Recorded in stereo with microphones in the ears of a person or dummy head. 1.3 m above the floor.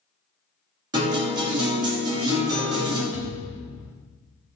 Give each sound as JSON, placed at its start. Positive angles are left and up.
{"t": 0.9, "sound": "a guitar", "side_deg": -20, "distance_m": 1.7}
{"t": 3.1, "sound": "a thud", "side_deg": 0, "distance_m": 0.7}